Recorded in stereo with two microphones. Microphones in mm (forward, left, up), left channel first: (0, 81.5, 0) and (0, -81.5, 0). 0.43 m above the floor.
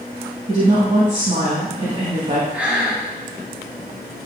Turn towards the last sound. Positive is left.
turn(degrees=-10)  # may be behind; listen again after turning